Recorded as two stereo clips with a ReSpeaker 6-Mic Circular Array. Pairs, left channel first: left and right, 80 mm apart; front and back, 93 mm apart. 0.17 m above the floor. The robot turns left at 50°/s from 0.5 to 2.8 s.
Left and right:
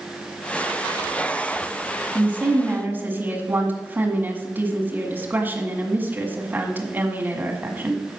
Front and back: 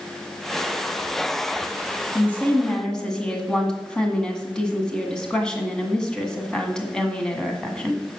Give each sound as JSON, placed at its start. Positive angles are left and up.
{"t": 2.1, "sound": "a woman speaking", "azimuth_deg": -40, "distance_m": 1.7}